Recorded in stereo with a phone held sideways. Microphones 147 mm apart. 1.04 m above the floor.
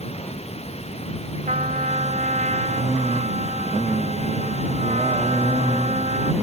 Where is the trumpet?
60° right (ahead or behind).